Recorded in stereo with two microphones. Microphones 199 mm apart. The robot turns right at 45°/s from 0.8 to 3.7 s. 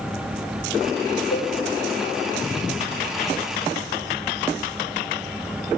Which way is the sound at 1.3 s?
85° left.